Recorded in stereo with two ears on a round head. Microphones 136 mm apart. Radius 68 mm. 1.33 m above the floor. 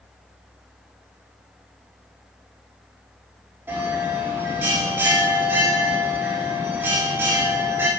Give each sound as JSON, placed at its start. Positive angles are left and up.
{"t": 3.7, "sound": "a bell", "side_deg": -15, "distance_m": 3.0}